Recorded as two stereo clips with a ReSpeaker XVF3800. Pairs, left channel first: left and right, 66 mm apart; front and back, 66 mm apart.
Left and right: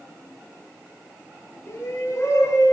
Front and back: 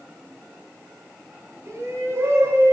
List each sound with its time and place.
1.6 s a shout: 135° left, 5.5 m; by 2.7 s 130° left, 6.5 m